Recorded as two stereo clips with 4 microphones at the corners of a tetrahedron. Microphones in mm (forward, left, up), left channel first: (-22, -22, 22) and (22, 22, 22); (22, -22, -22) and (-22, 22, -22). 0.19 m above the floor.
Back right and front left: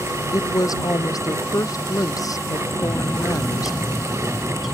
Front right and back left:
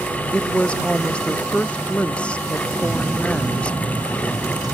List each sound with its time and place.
0.3 s a woman speaking: 115° right
2.8 s a bird: 125° left